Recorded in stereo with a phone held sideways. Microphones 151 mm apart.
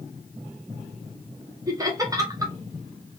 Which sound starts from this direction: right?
Laughter, at 1.7 s.